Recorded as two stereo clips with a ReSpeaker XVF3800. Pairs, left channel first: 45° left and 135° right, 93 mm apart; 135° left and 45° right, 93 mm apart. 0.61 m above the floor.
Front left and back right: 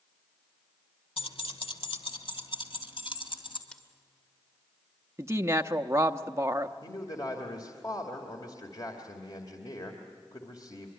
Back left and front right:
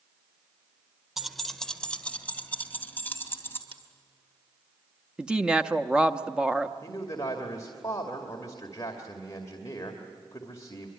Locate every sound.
1.2 s keys jangling: 40° left, 1.3 m; by 3.6 s 70° left, 3 m
3.7 s scissors: 35° right, 1.9 m
5.2 s a woman speaking: 120° right, 0.8 m
6.8 s a man speaking: 85° left, 2.5 m